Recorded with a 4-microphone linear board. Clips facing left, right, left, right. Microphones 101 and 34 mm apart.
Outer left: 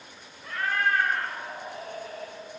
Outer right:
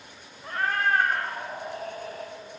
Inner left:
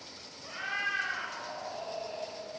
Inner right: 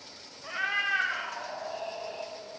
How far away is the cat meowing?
About 0.9 m.